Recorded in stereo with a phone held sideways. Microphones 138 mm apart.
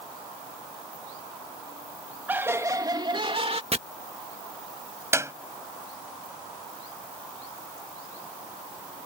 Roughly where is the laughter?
Centre.